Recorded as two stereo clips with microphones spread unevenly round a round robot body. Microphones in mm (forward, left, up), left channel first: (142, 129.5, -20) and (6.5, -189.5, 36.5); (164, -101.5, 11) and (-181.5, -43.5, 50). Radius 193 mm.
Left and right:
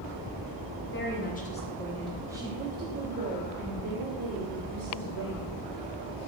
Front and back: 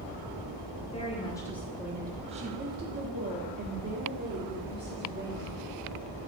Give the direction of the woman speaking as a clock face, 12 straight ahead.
10 o'clock.